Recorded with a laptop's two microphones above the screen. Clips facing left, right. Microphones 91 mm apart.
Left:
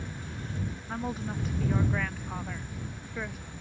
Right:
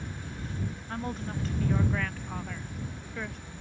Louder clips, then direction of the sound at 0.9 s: Left 2 dB; 5° left (ahead or behind).